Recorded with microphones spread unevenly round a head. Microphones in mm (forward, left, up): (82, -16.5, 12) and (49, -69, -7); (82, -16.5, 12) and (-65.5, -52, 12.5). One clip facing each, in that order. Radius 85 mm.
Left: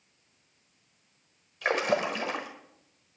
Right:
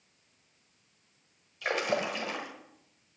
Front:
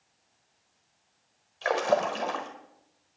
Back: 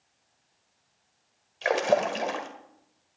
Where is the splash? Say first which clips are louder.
Left 3 dB, back 2 dB; 120° left, 1.4 m.